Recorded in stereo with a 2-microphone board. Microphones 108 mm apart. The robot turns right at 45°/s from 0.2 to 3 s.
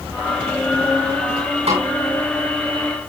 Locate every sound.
1.7 s a snare drum: 75° right (ahead or behind), 8 m; by 1.9 s 70° right (ahead or behind), 8 m